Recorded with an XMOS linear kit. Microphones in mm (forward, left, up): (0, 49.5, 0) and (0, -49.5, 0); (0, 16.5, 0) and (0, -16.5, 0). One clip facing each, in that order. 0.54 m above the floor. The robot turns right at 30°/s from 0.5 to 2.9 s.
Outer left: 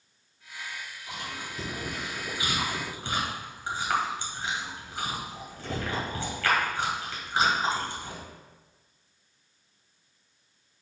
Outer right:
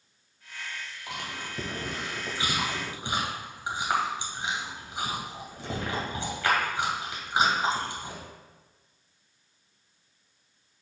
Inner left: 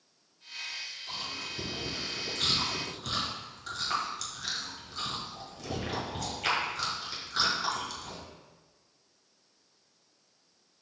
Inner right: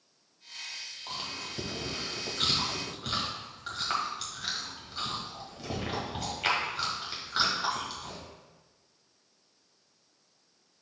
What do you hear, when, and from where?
1.1 s chewing: 70° right (ahead or behind), 1.9 m; by 8.2 s 20° right (ahead or behind), 1.9 m